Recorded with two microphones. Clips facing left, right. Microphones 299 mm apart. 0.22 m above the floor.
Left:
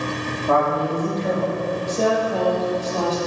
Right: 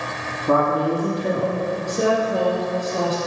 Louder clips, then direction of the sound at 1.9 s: Right 1 dB; 15° right (ahead or behind).